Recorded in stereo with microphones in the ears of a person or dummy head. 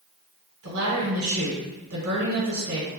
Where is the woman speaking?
75° right (ahead or behind), 1.3 m.